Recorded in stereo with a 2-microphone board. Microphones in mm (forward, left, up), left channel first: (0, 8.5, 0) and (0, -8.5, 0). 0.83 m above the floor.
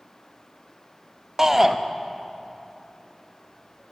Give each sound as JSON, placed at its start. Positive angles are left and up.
{"t": 1.4, "sound": "a shout", "side_deg": -15, "distance_m": 0.6}